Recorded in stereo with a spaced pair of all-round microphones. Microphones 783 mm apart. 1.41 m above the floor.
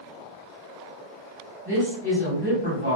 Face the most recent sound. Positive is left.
turn(degrees=-10)  # may be behind; listen again after turning